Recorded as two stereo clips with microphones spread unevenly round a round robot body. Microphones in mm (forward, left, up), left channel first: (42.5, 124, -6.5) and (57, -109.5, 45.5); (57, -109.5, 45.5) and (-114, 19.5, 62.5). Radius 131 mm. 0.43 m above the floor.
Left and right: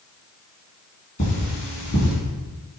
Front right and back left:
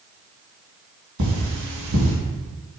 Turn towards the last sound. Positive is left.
turn(degrees=155)